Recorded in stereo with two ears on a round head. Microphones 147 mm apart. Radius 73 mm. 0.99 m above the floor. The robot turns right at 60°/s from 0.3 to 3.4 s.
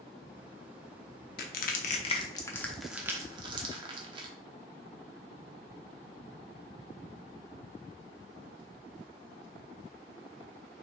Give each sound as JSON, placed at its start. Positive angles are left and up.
{"t": 1.4, "sound": "crushing", "side_deg": 65, "distance_m": 0.8}